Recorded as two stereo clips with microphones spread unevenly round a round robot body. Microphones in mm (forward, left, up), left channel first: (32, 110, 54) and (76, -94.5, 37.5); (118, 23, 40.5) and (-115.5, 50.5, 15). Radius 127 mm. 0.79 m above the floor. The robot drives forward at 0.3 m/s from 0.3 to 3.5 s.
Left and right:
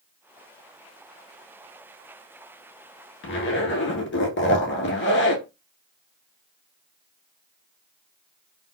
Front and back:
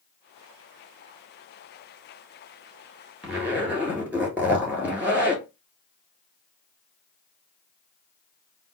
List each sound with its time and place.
3.2 s a zipper: 90° left, 1.5 m; by 5.4 s 95° left, 1.5 m